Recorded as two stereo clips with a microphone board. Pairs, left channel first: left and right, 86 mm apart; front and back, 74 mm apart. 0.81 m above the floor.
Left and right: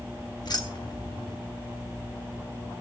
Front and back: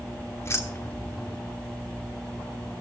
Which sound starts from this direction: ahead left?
Keys jangling, at 0.4 s.